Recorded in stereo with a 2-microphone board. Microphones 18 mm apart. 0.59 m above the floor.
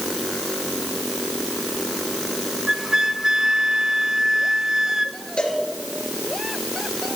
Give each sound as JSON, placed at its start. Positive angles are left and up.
{"t": 2.7, "sound": "a flute", "side_deg": -25, "distance_m": 0.9}
{"t": 5.4, "sound": "a cowbell", "side_deg": 65, "distance_m": 3.5}